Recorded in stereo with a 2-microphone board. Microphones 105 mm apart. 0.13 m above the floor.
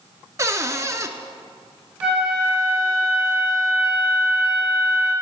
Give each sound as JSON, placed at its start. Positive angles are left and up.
{"t": 0.4, "sound": "a cupboard door", "side_deg": -30, "distance_m": 0.6}
{"t": 2.0, "sound": "a flute", "side_deg": -10, "distance_m": 3.0}